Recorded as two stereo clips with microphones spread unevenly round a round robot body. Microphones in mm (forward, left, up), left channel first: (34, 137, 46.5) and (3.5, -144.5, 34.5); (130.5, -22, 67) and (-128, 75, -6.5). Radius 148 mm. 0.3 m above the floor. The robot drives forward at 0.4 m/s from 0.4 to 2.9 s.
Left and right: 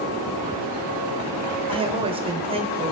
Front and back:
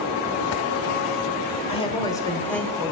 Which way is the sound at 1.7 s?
95° right.